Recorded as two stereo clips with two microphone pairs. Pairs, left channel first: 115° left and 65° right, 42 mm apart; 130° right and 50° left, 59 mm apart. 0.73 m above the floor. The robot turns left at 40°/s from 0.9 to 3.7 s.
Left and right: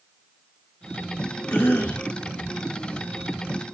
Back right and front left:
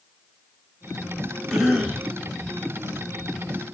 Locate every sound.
1.5 s a cough: 130° left, 2.5 m; by 2.1 s 105° left, 2.5 m